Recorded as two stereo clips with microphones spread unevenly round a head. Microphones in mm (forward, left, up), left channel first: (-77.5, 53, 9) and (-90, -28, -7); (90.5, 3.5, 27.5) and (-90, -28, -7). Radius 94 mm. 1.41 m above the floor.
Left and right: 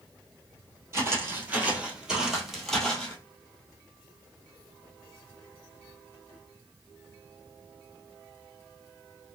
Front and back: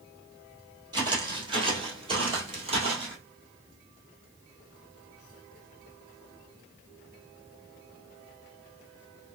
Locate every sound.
0.9 s footsteps: 115° right, 1.4 m; by 3.2 s 135° left, 1.6 m